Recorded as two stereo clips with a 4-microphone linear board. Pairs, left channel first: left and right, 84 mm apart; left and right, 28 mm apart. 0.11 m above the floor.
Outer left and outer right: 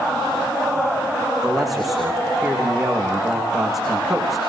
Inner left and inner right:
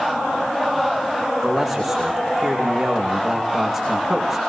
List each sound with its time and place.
1.4 s a man speaking: centre (ahead or behind), 10 m